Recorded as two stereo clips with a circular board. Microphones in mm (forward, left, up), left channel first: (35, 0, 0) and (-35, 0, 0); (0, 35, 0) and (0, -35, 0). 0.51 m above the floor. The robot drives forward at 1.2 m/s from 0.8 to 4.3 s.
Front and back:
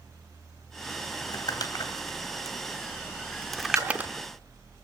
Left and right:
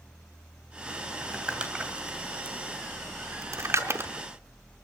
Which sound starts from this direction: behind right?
A splash, at 3.8 s.